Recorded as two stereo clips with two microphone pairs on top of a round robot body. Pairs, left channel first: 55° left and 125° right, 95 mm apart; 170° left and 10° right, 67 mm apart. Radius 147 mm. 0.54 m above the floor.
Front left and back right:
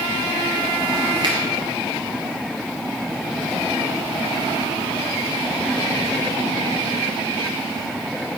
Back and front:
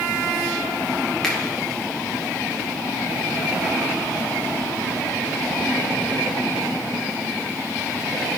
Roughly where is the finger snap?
Right.